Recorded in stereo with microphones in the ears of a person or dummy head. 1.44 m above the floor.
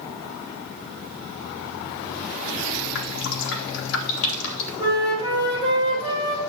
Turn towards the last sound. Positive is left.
turn(degrees=-20)  # may be behind; listen again after turning